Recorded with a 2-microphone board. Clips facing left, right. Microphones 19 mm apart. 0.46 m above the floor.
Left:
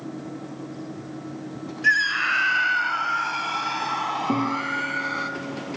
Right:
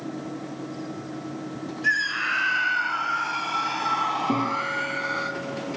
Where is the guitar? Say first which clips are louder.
Left 1 dB; 5° left (ahead or behind), 7.5 m.